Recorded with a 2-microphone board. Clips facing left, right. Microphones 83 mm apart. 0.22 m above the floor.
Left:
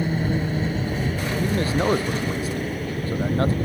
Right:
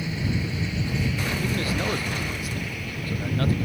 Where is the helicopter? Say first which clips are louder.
Left 5 dB; 45° left (ahead or behind); by 3.6 s 40° left (ahead or behind).